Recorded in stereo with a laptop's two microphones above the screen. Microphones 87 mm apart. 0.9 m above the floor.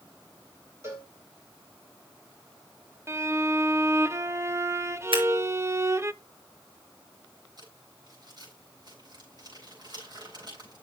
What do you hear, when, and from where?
0.8 s a cowbell: 30° right (ahead or behind), 3.5 m
3.1 s a violin: 30° right (ahead or behind), 0.6 m
5.1 s scissors: 85° right, 5.5 m
7.6 s crumpling: 50° right (ahead or behind), 7.5 m